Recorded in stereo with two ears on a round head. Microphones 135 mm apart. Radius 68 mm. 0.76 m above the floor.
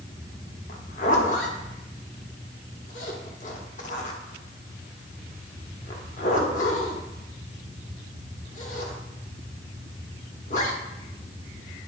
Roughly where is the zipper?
Left.